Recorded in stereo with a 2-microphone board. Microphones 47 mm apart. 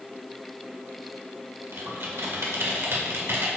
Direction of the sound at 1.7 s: 60° right (ahead or behind).